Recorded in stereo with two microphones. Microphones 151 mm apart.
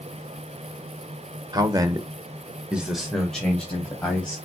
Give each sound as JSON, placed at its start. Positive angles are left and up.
{"t": 1.5, "sound": "a man speaking", "side_deg": -25, "distance_m": 1.0}